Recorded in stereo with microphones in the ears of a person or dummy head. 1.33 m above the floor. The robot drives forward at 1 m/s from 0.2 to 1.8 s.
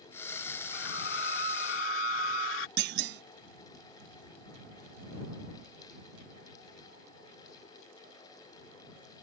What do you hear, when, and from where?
0.7 s a scream: 65° left (ahead or behind); by 2.7 s 80° left
2.8 s a clunk: 65° right (ahead or behind)